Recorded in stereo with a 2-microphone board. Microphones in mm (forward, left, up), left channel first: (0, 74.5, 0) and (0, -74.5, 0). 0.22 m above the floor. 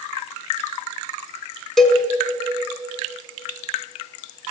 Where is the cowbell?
5° left (ahead or behind), 0.8 m.